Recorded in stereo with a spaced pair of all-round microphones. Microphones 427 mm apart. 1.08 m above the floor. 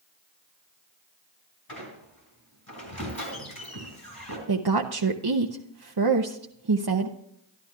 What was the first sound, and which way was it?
A squeak, 55° left (ahead or behind).